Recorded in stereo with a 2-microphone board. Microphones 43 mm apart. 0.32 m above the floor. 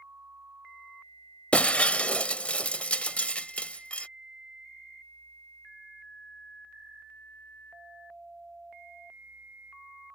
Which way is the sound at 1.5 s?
30° left (ahead or behind).